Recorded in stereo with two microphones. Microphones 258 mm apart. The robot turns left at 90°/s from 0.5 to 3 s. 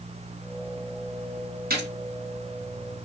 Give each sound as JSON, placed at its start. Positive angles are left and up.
{"t": 1.7, "sound": "a gunshot", "side_deg": -40, "distance_m": 2.5}